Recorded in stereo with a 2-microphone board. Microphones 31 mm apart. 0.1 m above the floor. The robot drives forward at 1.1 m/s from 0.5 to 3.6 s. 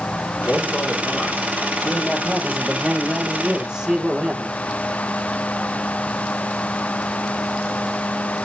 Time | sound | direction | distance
0.5 | a man speaking | 55° left (ahead or behind) | 3.5 m
1.8 | a man speaking | 15° right (ahead or behind) | 5 m